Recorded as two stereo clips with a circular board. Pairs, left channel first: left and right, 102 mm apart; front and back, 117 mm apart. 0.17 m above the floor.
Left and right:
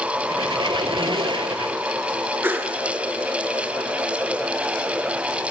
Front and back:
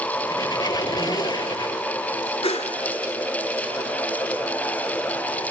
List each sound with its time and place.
0.3 s a squeak: 55° right, 0.5 m
2.4 s a whoosh: 20° right, 0.6 m